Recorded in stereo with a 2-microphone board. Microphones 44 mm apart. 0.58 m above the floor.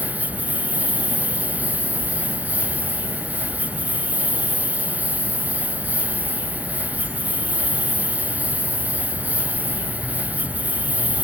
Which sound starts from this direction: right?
A lawn mower, at 0.0 s.